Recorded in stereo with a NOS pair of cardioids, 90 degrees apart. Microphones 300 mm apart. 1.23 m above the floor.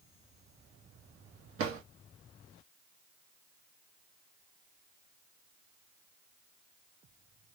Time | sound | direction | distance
1.6 | a drawer | 50° right | 0.9 m